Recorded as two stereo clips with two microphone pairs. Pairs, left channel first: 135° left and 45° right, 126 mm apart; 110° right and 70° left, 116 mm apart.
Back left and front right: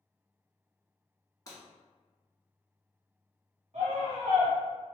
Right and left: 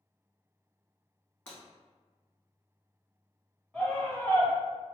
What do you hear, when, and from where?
1.5 s breaking glass: 175° right, 1.2 m
3.7 s a scream: 25° right, 0.9 m